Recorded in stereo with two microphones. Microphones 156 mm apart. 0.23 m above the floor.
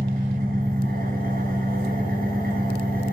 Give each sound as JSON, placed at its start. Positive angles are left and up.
{"t": 0.0, "sound": "an engine running", "side_deg": -65, "distance_m": 2.0}